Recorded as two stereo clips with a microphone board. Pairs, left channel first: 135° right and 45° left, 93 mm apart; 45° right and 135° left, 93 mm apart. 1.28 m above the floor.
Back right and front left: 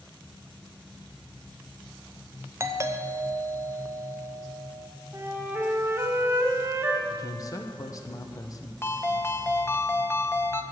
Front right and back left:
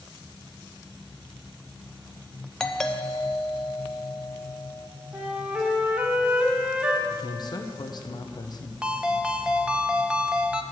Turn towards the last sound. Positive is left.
turn(degrees=-155)